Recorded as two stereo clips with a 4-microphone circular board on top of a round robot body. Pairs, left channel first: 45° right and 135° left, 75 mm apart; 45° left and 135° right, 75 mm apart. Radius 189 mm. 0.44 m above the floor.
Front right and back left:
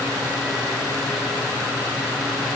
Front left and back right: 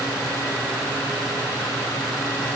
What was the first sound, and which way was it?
Only background noise.